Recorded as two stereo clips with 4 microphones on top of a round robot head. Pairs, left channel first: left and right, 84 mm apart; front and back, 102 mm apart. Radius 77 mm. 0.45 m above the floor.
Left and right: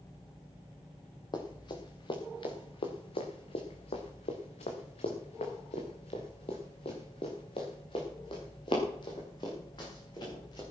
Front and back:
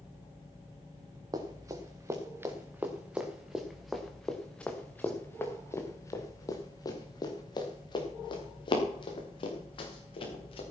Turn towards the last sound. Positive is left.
turn(degrees=30)